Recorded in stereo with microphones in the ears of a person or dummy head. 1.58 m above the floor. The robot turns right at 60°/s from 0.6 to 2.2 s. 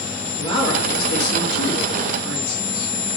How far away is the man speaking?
About 3 m.